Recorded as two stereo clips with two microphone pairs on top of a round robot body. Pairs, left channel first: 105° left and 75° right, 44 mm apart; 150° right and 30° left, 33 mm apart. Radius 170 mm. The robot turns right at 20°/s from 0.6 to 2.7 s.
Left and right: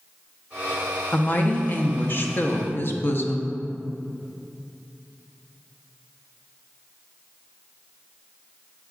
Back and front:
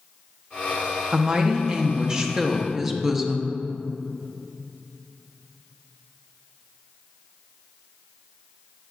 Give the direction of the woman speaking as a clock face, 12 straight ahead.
10 o'clock.